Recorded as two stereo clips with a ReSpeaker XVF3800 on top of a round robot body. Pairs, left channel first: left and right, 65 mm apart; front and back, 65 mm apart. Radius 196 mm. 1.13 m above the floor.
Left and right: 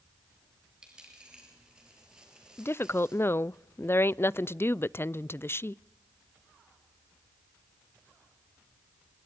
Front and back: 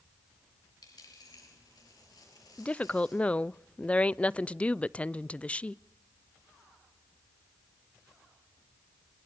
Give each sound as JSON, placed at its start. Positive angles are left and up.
{"t": 0.8, "sound": "a dropped coin", "azimuth_deg": -15, "distance_m": 6.5}
{"t": 2.6, "sound": "a woman speaking", "azimuth_deg": 60, "distance_m": 0.6}